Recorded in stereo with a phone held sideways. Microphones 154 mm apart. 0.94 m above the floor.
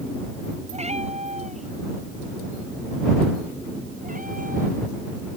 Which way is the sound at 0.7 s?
40° right (ahead or behind).